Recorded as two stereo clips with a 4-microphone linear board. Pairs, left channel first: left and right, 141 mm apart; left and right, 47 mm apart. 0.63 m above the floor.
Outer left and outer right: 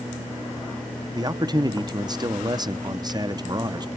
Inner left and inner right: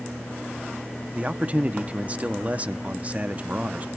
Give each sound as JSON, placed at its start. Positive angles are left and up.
{"t": 1.1, "sound": "a man speaking", "side_deg": -30, "distance_m": 0.5}